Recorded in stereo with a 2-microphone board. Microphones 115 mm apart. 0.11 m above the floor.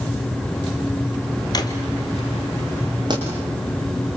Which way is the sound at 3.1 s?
40° right (ahead or behind).